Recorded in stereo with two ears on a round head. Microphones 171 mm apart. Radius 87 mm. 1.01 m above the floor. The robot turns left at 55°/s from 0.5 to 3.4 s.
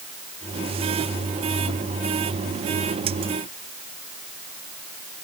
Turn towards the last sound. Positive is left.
No sound to turn to.